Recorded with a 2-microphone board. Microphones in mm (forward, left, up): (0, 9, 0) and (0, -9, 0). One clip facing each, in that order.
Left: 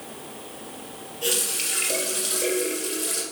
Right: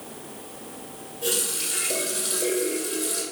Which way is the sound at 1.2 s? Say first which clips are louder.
Left 1 dB; 50° left (ahead or behind).